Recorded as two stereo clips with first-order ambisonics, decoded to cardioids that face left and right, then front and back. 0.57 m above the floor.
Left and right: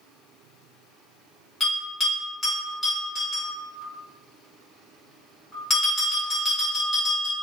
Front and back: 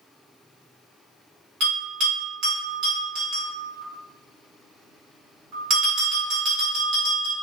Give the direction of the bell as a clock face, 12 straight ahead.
6 o'clock.